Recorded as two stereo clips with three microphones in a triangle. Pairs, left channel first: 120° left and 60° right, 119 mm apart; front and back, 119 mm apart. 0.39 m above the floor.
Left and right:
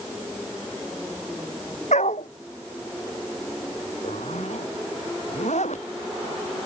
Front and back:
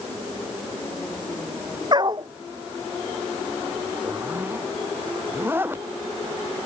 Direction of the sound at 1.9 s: 130° left.